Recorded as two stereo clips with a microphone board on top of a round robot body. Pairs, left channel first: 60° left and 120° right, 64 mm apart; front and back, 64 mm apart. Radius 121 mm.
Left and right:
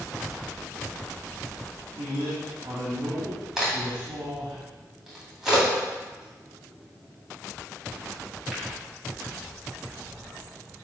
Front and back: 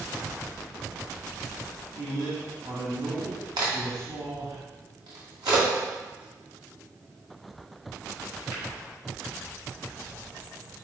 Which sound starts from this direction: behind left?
A crack, at 3.6 s.